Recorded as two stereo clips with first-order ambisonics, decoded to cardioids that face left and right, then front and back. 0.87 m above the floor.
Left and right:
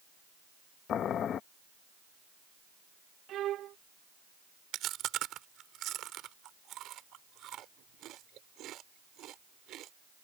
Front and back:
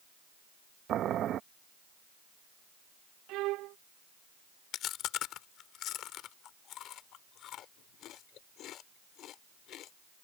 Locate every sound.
0.9 s boiling: 135° left
3.3 s a violin: 145° right
4.7 s chewing: 45° right